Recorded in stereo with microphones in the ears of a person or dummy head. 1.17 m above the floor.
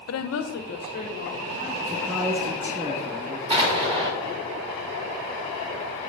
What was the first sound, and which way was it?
A woman speaking, 75° left (ahead or behind).